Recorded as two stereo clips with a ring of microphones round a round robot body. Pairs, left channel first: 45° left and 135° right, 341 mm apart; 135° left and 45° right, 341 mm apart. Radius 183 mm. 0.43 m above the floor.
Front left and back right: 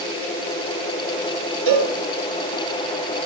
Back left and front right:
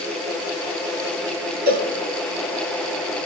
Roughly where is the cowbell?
Right.